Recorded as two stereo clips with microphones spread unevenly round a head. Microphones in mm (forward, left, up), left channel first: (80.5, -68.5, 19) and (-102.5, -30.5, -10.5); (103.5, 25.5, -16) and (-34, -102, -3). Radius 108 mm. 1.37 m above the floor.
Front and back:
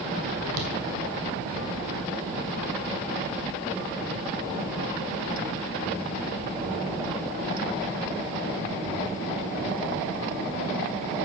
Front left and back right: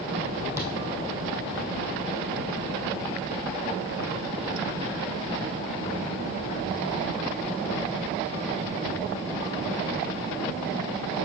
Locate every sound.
0.5 s footsteps: 150° left, 2.5 m